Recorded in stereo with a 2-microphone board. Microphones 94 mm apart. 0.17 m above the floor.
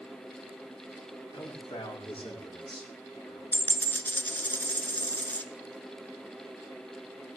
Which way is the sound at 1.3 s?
75° left (ahead or behind).